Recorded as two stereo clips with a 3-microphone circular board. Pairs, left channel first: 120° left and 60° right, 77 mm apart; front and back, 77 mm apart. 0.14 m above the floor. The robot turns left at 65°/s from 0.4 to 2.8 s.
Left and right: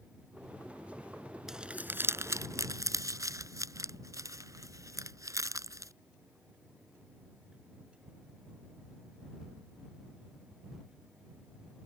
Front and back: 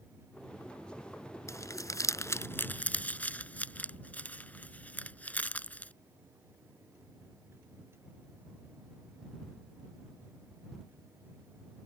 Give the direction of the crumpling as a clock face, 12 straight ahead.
11 o'clock.